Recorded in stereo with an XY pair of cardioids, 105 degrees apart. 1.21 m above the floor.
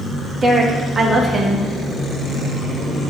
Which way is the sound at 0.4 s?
25° right.